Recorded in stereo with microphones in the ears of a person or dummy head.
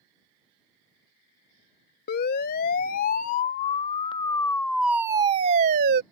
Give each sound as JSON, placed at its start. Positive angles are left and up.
{"t": 2.1, "sound": "a siren", "side_deg": 50}